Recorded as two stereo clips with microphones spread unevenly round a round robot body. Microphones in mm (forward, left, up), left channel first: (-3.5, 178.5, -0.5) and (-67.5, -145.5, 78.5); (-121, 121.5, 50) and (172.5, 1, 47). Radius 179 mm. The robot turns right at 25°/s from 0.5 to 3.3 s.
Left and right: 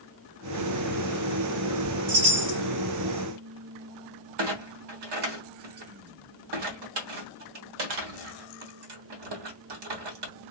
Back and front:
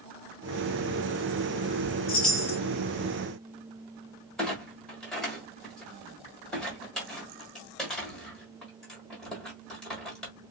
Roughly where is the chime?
Behind right.